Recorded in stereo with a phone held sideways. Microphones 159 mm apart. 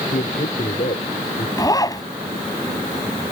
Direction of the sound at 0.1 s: 60° left (ahead or behind).